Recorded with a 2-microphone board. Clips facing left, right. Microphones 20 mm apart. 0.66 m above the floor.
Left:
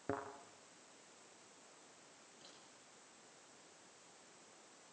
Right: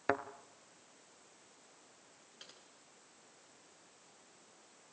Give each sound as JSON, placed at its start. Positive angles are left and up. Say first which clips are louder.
{"t": 0.1, "sound": "a thud", "louder": "right 8 dB", "side_deg": -70, "distance_m": 1.4}
{"t": 2.4, "sound": "typing on a keyboard", "louder": "right 6 dB", "side_deg": -60, "distance_m": 8.5}